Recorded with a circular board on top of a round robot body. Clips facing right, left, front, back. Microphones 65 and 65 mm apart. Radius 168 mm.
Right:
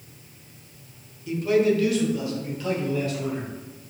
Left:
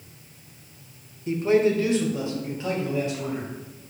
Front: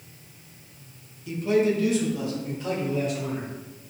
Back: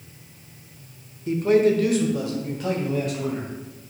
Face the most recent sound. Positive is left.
turn(degrees=160)